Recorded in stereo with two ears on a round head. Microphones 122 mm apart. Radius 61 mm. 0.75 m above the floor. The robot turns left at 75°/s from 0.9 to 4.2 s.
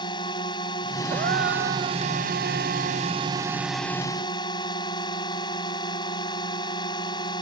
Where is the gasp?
55° right; by 2.0 s 125° right.